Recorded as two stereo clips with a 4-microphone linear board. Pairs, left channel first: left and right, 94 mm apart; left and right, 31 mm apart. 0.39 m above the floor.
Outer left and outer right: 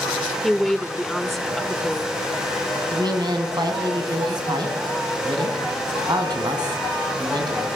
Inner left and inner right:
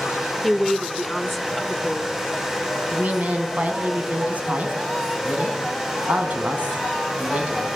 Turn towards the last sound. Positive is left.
turn(degrees=-50)  # may be behind; listen again after turning